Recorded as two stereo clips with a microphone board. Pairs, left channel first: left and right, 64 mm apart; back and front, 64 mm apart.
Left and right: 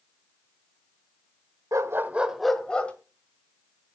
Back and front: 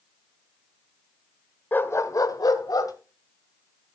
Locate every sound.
1.7 s a dog barking: 120° right, 1.2 m; by 2.9 s 160° left, 1.8 m